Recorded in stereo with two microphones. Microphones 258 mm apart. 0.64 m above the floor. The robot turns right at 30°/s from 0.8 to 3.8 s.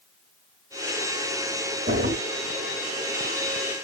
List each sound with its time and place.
1.9 s a drawer: 45° right (ahead or behind), 1.3 m; by 2.1 s 35° right (ahead or behind), 1.3 m